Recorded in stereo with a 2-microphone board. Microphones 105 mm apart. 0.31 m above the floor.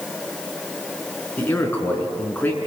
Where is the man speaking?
15° left (ahead or behind), 4.5 m.